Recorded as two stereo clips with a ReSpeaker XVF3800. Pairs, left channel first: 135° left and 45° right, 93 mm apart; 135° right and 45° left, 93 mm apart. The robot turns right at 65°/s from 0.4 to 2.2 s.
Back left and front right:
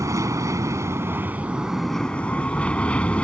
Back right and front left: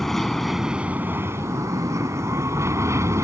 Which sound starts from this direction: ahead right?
An aircraft, at 0.0 s.